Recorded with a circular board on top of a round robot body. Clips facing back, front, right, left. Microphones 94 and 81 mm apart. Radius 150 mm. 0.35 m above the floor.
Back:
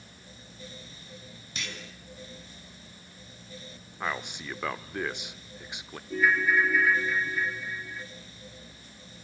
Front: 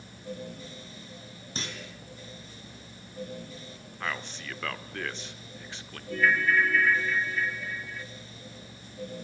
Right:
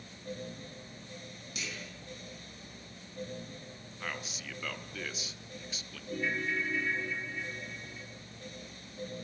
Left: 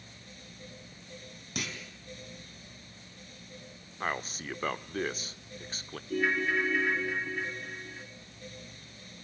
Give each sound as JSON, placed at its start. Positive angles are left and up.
{"t": 1.6, "sound": "a clunk", "azimuth_deg": 55, "distance_m": 4.0}
{"t": 4.0, "sound": "a man speaking", "azimuth_deg": 110, "distance_m": 1.4}
{"t": 6.1, "sound": "a ringtone", "azimuth_deg": 105, "distance_m": 1.8}